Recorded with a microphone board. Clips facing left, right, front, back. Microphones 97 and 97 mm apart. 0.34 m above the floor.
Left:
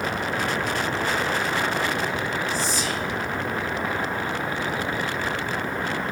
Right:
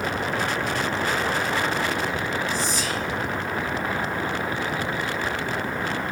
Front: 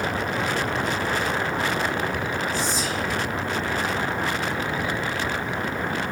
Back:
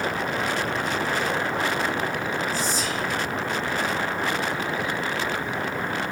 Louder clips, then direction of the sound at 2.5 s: Even, front 1 dB; 55° left.